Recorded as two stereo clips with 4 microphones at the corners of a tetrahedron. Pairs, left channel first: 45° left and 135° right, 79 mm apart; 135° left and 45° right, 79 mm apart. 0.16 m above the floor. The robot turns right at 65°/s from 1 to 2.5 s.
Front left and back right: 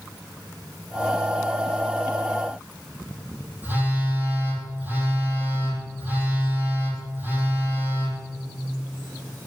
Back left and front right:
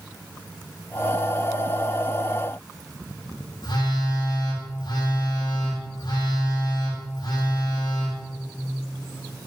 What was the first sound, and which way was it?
A phone buzzing, 160° left.